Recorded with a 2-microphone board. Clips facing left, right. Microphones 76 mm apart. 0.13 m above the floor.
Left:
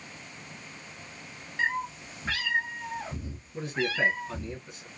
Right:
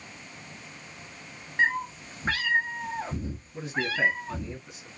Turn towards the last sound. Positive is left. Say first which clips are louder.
# even
turn(degrees=-5)  # may be behind; listen again after turning